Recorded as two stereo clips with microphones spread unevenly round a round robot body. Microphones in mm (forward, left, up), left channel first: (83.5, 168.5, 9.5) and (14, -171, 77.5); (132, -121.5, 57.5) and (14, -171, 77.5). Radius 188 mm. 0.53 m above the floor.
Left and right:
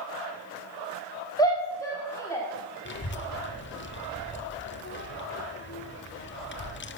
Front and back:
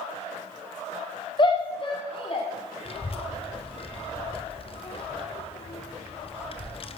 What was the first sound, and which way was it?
A shout, 15° left.